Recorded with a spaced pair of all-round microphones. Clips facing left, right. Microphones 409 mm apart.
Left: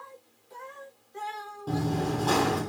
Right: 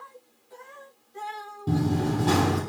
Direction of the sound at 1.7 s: 35° right (ahead or behind).